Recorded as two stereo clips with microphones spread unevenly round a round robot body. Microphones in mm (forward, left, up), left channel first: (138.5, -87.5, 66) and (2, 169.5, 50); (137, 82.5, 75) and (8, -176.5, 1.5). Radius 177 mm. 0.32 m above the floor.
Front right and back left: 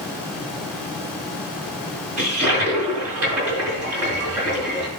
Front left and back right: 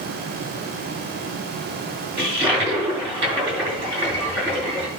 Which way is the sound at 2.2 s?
160° left.